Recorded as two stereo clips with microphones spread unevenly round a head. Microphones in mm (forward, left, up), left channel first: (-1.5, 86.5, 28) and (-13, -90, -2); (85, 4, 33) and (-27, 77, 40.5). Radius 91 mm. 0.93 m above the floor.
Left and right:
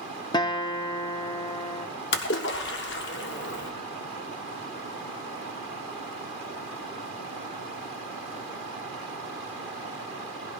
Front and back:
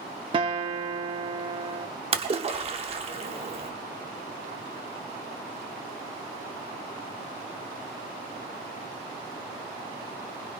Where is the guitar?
125° left, 0.5 m.